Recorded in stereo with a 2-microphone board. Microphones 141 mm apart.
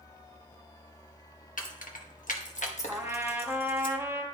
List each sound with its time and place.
1.6 s keys jangling: 75° left (ahead or behind), 1.0 m; by 3.9 s 35° left (ahead or behind), 1.3 m
2.9 s a trumpet: 15° right (ahead or behind), 0.9 m